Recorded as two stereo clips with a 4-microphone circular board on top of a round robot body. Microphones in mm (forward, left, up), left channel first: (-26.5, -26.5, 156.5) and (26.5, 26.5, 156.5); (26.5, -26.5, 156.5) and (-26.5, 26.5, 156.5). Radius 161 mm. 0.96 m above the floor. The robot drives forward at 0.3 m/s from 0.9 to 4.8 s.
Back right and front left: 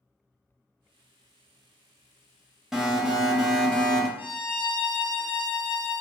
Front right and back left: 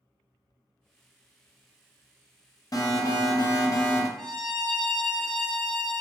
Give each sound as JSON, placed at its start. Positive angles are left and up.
{"t": 2.7, "sound": "an alarm", "azimuth_deg": -35, "distance_m": 1.2}
{"t": 4.2, "sound": "a violin", "azimuth_deg": -135, "distance_m": 1.3}